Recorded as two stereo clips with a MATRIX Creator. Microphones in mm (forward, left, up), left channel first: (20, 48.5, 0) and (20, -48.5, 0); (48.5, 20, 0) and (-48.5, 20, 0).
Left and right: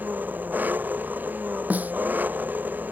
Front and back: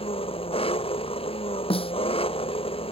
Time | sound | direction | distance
0.0 | an engine running | 15° right | ?
1.7 | a snare drum | 15° right | ?